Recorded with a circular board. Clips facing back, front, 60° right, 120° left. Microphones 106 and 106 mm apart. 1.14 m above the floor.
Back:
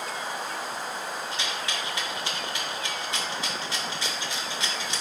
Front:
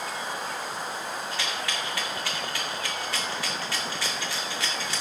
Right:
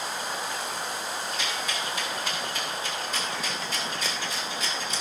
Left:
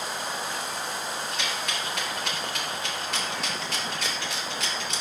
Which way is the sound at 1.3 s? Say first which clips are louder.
Front 1 dB, even; 110° left.